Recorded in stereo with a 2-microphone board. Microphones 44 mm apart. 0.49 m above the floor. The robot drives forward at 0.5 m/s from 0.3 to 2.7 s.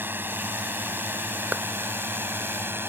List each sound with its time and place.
0.0 s a drone: 50° right (ahead or behind); by 2.9 s 60° right (ahead or behind)
1.5 s a clap: 45° right (ahead or behind)